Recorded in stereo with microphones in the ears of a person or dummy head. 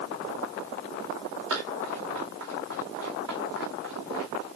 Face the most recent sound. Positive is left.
turn(degrees=-75)  # may be behind; listen again after turning